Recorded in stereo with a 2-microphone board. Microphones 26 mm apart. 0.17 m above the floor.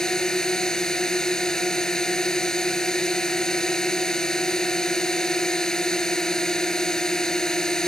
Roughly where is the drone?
Left.